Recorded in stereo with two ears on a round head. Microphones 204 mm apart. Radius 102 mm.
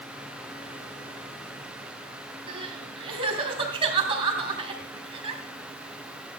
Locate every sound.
2.5 s crying: 25° right (ahead or behind), 3.5 m